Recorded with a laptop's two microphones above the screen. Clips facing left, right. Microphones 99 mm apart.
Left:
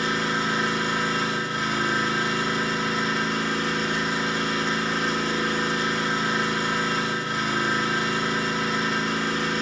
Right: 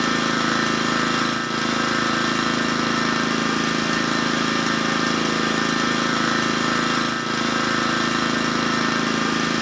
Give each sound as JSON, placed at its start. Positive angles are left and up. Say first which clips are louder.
{"t": 0.0, "sound": "an engine running", "louder": "right 4 dB", "side_deg": -80, "distance_m": 0.8}